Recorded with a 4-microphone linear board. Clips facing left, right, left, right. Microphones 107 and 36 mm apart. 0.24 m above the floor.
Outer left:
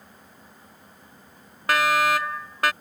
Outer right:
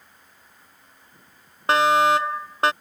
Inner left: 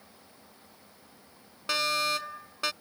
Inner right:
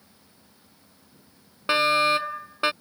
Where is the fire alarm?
25° right (ahead or behind).